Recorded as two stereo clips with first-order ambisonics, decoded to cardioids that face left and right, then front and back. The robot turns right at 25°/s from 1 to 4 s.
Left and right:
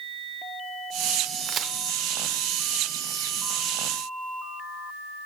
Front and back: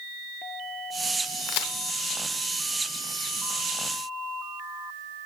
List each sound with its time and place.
1.5 s a crack: 30° right, 0.7 m; by 1.7 s 25° right, 0.7 m